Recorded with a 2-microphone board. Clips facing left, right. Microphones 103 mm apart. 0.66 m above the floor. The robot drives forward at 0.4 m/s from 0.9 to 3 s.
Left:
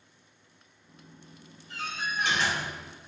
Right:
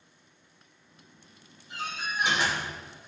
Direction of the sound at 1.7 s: 15° right (ahead or behind).